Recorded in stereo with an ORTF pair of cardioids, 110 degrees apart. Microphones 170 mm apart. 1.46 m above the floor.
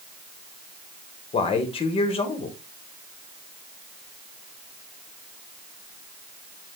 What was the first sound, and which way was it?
A man speaking, 35° left.